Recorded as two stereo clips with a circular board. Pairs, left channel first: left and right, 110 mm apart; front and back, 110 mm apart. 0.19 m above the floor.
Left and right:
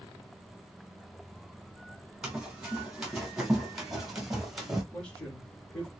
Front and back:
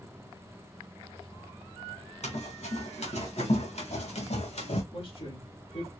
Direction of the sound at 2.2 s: 5° right.